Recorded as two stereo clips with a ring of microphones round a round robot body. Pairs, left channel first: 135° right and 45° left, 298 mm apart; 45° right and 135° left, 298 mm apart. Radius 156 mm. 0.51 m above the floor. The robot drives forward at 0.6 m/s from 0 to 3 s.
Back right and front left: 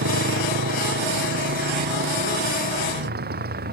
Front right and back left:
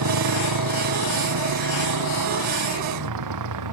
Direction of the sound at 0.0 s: 100° left.